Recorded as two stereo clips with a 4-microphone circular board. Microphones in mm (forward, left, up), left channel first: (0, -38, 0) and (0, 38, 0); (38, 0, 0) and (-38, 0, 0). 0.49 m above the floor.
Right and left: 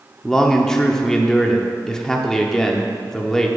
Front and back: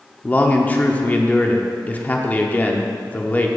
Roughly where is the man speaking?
Ahead.